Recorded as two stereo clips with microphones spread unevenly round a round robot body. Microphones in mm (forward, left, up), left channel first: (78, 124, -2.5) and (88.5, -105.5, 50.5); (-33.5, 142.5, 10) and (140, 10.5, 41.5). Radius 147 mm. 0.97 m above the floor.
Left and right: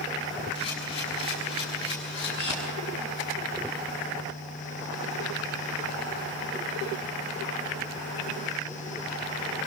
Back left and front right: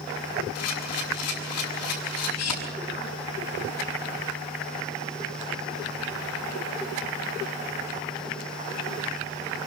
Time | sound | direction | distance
0.6 | a camera shutter | 165° left | 6.5 m